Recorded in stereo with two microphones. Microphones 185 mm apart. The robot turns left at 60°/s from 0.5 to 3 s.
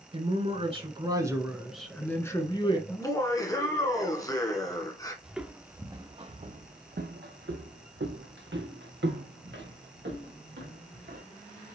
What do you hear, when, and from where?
0.1 s a man speaking: 100° right, 1.2 m; by 2.8 s 120° left, 1.2 m
2.9 s laughter: 20° left (ahead or behind), 1.2 m
5.2 s footsteps: 5° right (ahead or behind), 1.0 m; by 11.2 s 70° right (ahead or behind), 2.5 m